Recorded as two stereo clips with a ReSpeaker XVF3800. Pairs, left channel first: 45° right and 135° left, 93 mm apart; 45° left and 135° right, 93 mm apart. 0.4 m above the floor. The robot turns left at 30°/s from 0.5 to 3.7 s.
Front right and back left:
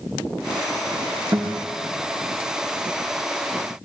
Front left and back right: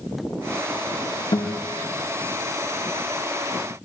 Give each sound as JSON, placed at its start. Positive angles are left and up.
{"t": 1.3, "sound": "a guitar", "azimuth_deg": 60, "distance_m": 5.0}